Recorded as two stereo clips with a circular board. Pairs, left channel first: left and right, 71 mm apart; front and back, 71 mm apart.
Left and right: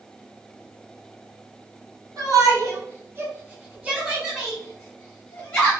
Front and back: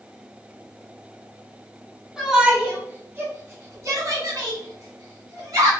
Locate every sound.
2.2 s a shout: 95° right, 1.4 m; by 5.7 s 155° left, 2 m